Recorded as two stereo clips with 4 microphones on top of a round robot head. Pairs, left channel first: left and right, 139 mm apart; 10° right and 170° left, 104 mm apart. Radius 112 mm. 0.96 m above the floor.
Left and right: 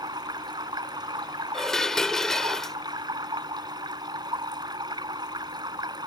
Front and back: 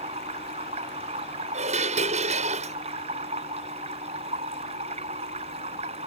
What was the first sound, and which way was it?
Running water, 150° right.